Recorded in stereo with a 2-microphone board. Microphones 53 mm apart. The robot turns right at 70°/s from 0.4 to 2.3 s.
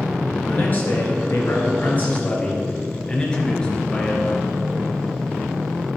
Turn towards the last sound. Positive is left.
turn(degrees=160)